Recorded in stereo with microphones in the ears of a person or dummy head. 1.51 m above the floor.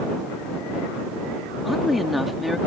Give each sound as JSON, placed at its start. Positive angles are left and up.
{"t": 1.6, "sound": "a woman speaking", "side_deg": 0}